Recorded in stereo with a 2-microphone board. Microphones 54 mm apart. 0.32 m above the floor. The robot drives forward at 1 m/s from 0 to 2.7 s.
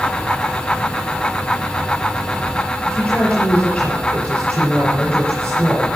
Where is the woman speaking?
5° left (ahead or behind), 5 m.